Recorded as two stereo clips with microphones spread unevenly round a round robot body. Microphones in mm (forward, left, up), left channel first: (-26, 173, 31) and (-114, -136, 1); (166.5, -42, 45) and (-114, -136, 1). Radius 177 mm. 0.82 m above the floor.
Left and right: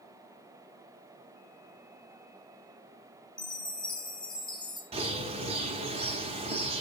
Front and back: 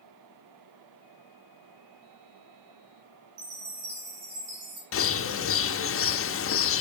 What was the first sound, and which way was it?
A chime, 150° left.